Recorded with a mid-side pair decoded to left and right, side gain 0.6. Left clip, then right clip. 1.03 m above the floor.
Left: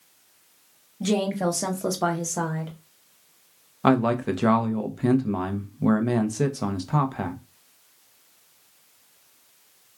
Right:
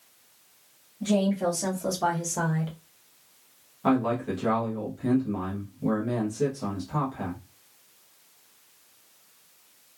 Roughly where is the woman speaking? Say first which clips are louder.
Left 1 dB; ahead left.